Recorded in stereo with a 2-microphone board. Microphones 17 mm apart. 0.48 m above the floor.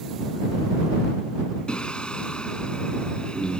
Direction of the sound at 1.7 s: 60° left (ahead or behind).